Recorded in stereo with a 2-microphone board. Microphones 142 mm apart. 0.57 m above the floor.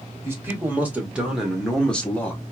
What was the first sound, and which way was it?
A man speaking, 20° right (ahead or behind).